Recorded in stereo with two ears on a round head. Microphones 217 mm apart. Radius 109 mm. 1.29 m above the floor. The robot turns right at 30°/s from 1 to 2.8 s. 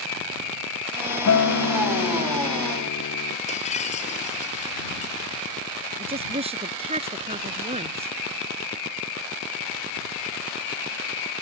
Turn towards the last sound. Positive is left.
turn(degrees=-25)  # may be behind; listen again after turning